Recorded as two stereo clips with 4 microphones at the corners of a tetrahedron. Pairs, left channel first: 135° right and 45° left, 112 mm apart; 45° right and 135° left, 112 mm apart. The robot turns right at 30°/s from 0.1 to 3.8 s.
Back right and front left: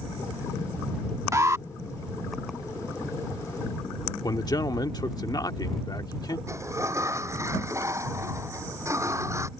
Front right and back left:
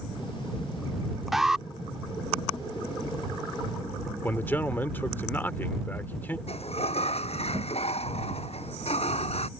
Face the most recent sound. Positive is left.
turn(degrees=-20)